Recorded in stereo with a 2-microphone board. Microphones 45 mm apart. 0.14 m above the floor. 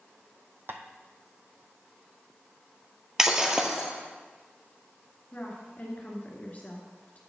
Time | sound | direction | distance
0.7 | tapping | 55° right (ahead or behind) | 0.9 m
3.2 | breaking glass | 15° right (ahead or behind) | 1.1 m
5.3 | a woman speaking | 35° left (ahead or behind) | 2.0 m